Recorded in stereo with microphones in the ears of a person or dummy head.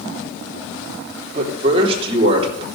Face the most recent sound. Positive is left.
turn(degrees=-25)  # may be behind; listen again after turning